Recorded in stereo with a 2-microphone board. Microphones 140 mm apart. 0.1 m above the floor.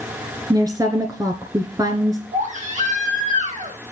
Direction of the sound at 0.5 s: 25° right (ahead or behind).